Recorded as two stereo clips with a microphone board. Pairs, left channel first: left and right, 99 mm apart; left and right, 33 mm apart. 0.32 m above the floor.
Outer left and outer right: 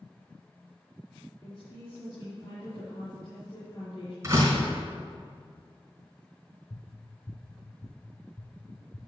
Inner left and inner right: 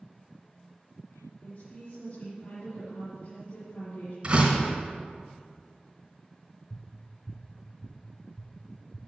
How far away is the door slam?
About 3.5 m.